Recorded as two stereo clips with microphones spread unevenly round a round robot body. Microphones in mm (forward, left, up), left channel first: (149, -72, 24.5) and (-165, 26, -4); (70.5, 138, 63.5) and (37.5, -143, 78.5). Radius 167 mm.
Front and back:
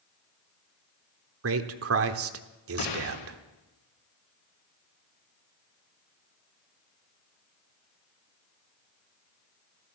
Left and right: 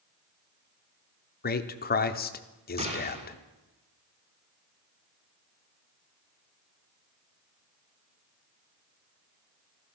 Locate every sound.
1.4 s a man speaking: 130° left, 1.2 m
2.8 s a gunshot: 30° right, 4 m